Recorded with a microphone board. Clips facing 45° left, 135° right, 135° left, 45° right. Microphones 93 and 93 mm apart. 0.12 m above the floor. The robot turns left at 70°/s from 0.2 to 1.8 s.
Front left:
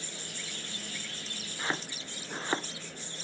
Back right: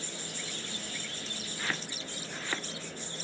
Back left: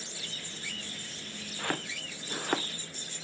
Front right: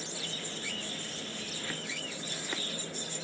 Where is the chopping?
115° left; by 2.7 s 100° left.